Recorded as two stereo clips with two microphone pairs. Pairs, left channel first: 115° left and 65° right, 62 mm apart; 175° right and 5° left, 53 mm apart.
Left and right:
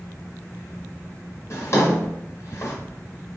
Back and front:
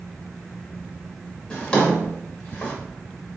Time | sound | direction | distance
1.5 | a drawer | 120° left | 1.6 m